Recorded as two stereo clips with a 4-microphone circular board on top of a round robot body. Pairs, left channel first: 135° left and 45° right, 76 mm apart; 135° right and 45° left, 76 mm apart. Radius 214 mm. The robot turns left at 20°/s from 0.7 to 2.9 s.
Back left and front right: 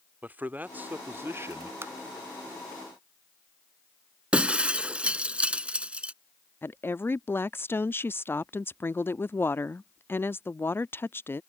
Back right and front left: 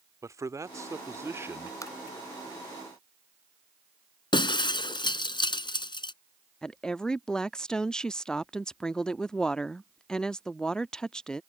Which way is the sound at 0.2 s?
15° left.